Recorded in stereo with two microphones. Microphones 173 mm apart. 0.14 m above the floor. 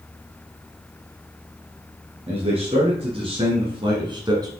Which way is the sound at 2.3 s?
35° right (ahead or behind).